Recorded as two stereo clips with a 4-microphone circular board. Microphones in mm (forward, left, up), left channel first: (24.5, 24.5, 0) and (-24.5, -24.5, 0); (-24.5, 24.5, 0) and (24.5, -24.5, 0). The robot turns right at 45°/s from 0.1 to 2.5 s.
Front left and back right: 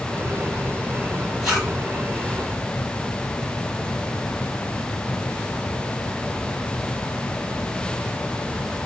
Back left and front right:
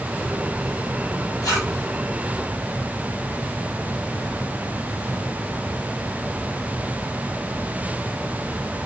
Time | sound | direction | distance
1.4 | a zipper | 140° left | 3 m